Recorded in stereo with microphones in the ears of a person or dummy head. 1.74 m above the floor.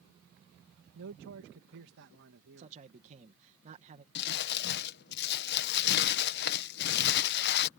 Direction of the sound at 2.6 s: 35° right (ahead or behind).